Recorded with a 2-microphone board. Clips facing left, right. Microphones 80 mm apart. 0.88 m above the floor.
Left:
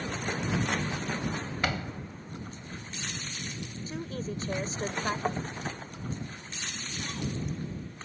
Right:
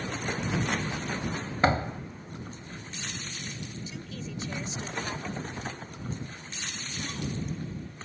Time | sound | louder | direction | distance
1.6 | a door slam | right 9 dB | 35° right (ahead or behind) | ?
3.9 | a woman speaking | left 4 dB | 40° left (ahead or behind) | ?
5.2 | tapping | left 6 dB | 45° left (ahead or behind) | ?